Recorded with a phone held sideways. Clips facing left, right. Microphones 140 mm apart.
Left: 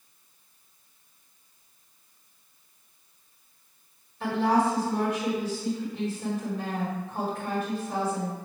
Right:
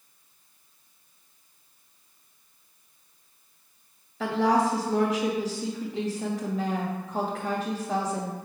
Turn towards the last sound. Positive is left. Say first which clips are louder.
# right 1 dB
turn(degrees=-85)